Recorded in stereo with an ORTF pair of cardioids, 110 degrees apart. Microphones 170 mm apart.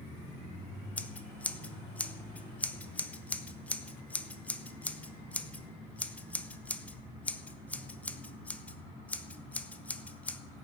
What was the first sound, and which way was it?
Scissors, 10° left.